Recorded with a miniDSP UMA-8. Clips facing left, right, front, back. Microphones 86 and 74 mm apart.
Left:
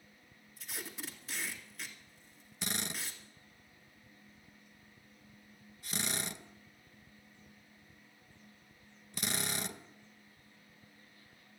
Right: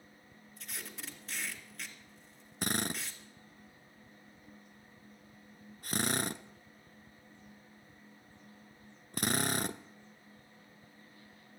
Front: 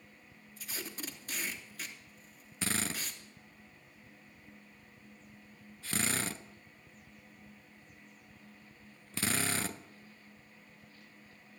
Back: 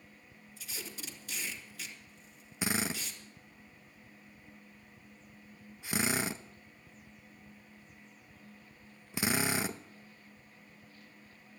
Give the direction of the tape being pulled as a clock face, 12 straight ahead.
12 o'clock.